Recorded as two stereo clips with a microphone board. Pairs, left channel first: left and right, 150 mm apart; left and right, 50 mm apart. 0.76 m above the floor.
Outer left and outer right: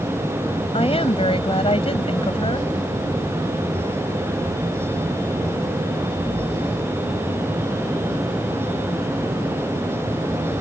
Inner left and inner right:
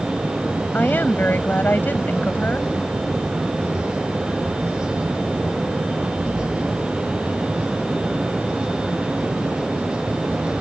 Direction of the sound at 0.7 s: 40° left (ahead or behind).